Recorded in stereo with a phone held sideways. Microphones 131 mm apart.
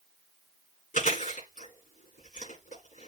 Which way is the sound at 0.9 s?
85° left.